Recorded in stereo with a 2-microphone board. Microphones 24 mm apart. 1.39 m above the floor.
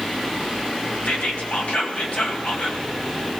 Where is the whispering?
70° left (ahead or behind), 1.8 m.